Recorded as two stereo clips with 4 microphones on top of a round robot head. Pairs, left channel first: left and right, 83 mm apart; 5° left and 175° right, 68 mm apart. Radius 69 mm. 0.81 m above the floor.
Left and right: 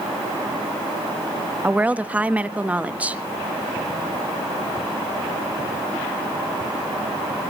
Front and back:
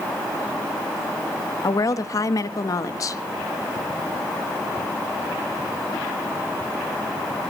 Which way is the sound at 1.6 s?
20° right.